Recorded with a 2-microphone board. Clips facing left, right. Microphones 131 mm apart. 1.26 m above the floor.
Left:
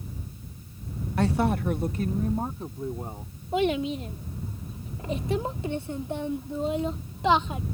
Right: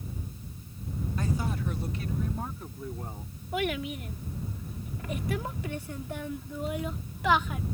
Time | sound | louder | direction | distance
1.2 | a woman speaking | left 9 dB | 80° left | ?
3.5 | a child speaking | left 6 dB | 25° left (ahead or behind) | ?